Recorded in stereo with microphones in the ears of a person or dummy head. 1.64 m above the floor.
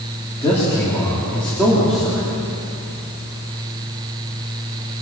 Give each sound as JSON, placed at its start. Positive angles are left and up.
{"t": 0.4, "sound": "a man speaking", "side_deg": 15, "distance_m": 4.0}